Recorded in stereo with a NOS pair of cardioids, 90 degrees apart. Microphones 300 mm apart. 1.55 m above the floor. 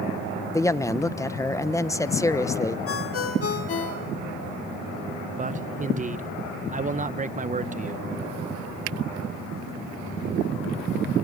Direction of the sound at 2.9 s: 50° left.